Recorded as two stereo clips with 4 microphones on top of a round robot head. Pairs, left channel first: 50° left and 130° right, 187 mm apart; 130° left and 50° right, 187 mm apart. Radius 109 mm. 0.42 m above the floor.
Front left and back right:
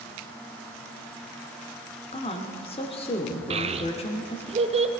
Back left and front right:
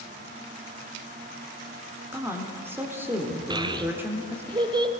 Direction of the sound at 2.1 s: 20° left.